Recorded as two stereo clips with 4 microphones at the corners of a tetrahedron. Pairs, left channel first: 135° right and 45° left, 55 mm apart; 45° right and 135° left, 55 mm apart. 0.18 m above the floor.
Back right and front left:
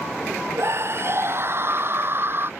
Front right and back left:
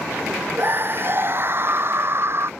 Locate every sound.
0.6 s a scream: 85° left; by 2.5 s 95° left